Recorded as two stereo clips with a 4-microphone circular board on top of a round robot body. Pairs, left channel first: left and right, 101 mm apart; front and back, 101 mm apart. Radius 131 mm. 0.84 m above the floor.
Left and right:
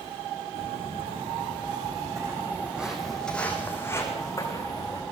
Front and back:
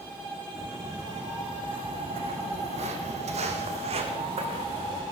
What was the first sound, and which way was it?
Footsteps, 115° right.